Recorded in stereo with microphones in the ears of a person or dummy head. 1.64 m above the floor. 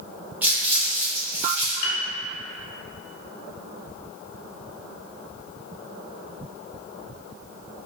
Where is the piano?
65° left (ahead or behind), 0.6 m.